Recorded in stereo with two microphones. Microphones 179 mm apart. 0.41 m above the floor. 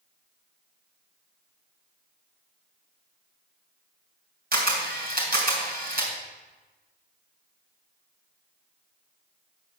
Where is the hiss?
No hiss in this recording.